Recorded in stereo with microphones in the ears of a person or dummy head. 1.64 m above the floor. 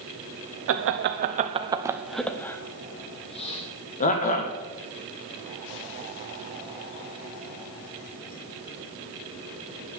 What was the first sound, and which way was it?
Laughter, 70° right (ahead or behind).